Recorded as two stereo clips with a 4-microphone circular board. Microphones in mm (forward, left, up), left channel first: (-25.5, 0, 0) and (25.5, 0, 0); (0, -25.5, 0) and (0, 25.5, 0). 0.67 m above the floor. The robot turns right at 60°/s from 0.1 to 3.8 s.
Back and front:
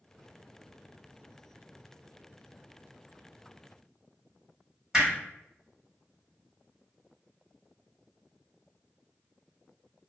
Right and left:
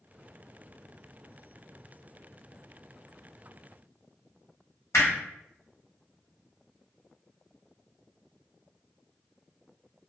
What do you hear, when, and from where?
4.9 s hammering: 75° right, 1.5 m